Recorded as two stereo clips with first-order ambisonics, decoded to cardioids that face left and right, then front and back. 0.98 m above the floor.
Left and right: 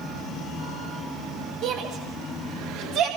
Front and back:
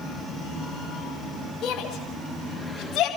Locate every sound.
1.6 s a shout: 55° right, 5 m